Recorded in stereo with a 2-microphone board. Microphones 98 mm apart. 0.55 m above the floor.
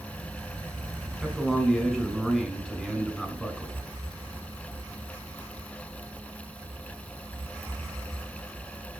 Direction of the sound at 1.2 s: 5° left (ahead or behind).